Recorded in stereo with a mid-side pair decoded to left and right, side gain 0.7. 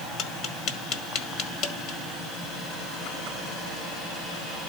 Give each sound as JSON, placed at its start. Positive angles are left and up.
{"t": 0.2, "sound": "tapping", "azimuth_deg": 55, "distance_m": 1.6}